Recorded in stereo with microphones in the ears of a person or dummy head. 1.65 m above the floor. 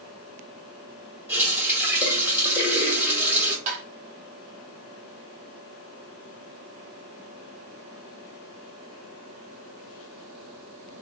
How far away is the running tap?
About 1.8 m.